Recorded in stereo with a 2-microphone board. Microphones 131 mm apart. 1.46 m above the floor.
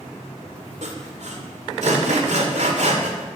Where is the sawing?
60° right (ahead or behind), 2 m.